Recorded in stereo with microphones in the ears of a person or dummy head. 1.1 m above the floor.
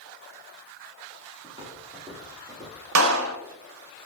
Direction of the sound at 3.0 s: 80° right.